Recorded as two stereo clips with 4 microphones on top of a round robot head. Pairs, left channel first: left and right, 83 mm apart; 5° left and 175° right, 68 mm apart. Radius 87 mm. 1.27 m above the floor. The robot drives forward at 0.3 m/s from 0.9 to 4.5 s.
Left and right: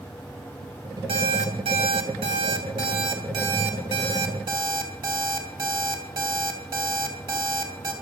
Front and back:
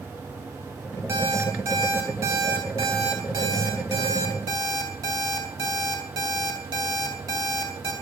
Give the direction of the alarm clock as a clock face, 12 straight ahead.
4 o'clock.